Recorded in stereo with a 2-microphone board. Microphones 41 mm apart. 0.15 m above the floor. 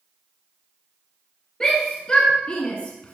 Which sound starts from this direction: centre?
A shout, at 1.6 s.